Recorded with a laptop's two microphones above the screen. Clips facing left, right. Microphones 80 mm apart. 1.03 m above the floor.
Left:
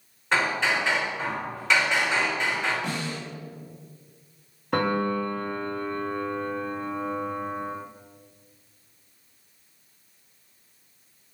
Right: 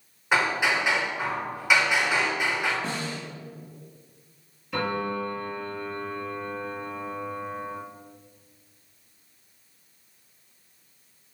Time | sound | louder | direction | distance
0.3 | hammering | right 1 dB | 10° right (ahead or behind) | 3.5 m
2.8 | a snare drum | left 1 dB | 30° right (ahead or behind) | 2 m
4.7 | a piano | left 4 dB | 50° left (ahead or behind) | 1.3 m